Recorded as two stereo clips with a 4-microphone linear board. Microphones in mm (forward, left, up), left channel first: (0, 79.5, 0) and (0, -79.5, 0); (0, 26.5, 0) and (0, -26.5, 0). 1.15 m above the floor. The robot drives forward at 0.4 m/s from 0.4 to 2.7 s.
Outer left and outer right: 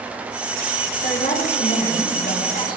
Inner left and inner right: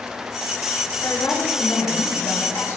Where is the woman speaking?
80° left, 5.5 m; by 2.8 s 85° left, 5.5 m.